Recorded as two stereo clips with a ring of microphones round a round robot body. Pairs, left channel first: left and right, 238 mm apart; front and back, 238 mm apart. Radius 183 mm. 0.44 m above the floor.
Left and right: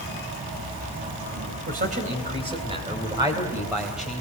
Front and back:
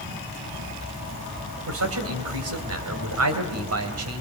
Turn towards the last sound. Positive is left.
turn(degrees=180)